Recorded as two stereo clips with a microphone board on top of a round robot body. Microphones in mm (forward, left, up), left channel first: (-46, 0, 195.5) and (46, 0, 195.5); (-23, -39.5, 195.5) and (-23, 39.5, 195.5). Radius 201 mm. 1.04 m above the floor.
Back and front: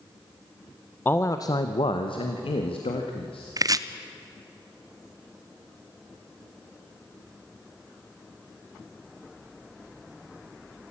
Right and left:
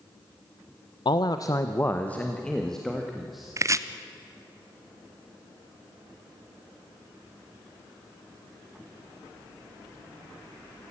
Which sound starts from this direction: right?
A man speaking, at 1.1 s.